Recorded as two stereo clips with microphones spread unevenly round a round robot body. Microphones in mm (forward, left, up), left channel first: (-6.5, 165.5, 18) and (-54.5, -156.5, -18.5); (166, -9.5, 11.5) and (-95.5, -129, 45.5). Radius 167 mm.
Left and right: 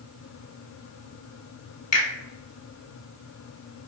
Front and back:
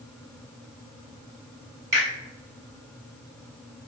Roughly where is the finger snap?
Behind left.